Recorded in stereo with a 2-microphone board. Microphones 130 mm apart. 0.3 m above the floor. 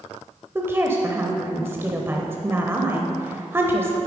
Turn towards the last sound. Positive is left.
turn(degrees=-20)  # may be behind; listen again after turning